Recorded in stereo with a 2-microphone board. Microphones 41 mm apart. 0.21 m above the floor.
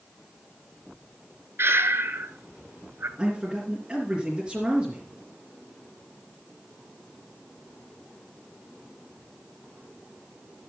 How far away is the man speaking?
About 3 m.